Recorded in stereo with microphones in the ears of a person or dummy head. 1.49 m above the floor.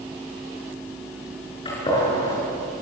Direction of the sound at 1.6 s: 25° left (ahead or behind).